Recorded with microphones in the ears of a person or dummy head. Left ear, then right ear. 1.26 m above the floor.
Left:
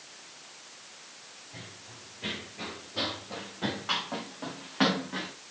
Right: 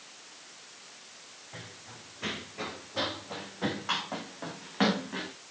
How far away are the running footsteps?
About 3 m.